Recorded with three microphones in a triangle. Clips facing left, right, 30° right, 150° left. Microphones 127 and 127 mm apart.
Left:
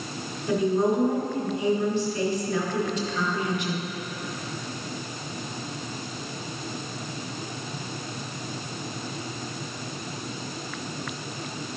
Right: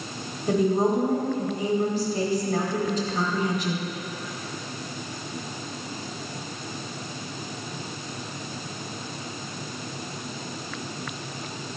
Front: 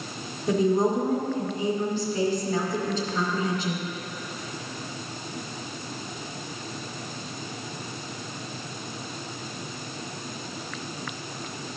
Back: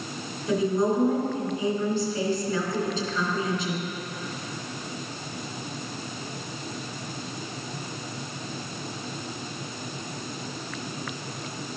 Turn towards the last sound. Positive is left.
turn(degrees=-50)